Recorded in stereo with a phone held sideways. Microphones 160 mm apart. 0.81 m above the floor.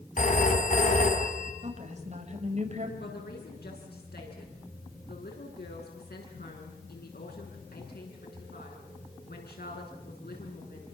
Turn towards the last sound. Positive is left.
turn(degrees=80)